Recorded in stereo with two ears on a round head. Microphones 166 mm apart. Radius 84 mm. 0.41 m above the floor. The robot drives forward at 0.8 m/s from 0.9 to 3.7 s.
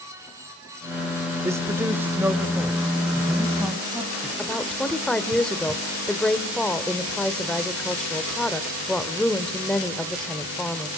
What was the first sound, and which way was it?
A man speaking, 15° right (ahead or behind).